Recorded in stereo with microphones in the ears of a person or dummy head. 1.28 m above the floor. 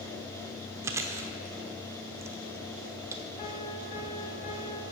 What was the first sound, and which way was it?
Chewing, 15° right (ahead or behind).